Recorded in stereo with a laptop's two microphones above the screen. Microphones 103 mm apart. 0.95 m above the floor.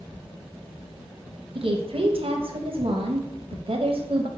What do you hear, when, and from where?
1.6 s a woman speaking: 60° right (ahead or behind), 0.7 m